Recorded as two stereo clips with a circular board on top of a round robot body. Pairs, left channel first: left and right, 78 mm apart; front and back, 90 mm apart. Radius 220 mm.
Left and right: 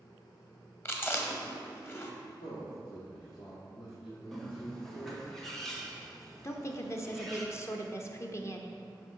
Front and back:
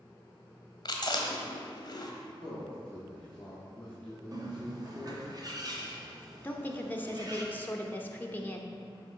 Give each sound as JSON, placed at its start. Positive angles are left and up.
{"t": 0.8, "sound": "chewing", "azimuth_deg": 35, "distance_m": 1.3}
{"t": 2.4, "sound": "a man speaking", "azimuth_deg": 80, "distance_m": 1.8}
{"t": 4.3, "sound": "a bird", "azimuth_deg": 175, "distance_m": 1.5}
{"t": 6.4, "sound": "a woman speaking", "azimuth_deg": 60, "distance_m": 1.2}